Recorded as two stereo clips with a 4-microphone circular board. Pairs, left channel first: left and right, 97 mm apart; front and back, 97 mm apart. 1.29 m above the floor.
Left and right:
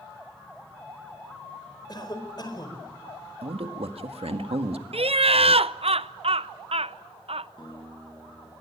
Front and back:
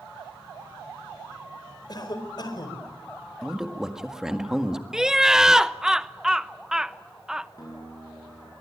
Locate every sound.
1.9 s a cough: 45° left, 4.5 m
3.4 s a man speaking: 95° right, 1.8 m
4.9 s laughter: 95° right, 0.7 m
7.6 s a guitar: 50° left, 9.5 m